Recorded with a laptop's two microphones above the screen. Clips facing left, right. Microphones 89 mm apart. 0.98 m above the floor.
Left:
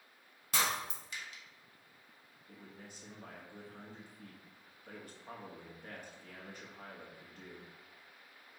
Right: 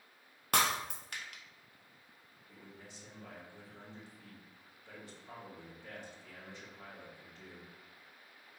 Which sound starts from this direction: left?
A man speaking, at 2.5 s.